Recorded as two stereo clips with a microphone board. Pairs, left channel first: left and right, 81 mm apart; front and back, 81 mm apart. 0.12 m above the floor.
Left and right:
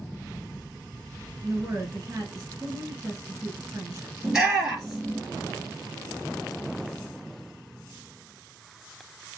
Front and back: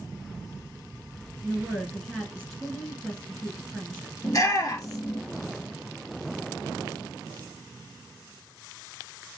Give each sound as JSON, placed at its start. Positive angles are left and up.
{"t": 1.4, "sound": "a woman speaking", "azimuth_deg": -85, "distance_m": 1.8}
{"t": 4.2, "sound": "a shout", "azimuth_deg": -10, "distance_m": 2.5}